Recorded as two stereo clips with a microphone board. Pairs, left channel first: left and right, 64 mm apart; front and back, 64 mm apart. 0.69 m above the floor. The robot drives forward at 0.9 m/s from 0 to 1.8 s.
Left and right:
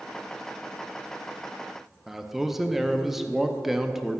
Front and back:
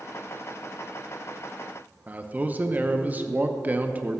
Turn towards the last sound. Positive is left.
turn(degrees=-175)